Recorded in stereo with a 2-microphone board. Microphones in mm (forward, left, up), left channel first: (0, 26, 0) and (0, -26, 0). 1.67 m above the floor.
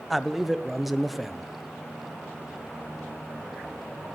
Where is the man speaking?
5° right (ahead or behind), 1.0 m.